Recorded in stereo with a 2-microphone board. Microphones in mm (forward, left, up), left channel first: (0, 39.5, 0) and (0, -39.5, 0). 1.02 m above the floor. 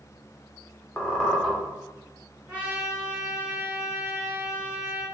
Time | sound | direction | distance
1.0 | a squeak | 10° left (ahead or behind) | 0.6 m
2.5 | a trumpet | 20° right (ahead or behind) | 0.9 m